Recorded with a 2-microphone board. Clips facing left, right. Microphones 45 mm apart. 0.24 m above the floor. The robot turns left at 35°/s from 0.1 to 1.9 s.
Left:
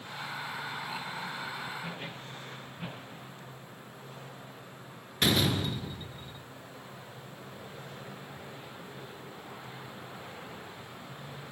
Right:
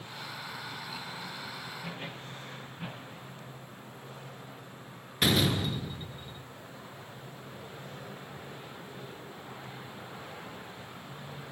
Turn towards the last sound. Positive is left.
turn(degrees=0)  # may be behind; listen again after turning